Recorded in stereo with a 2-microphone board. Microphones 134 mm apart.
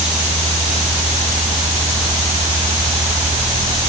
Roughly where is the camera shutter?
No camera shutter in this recording.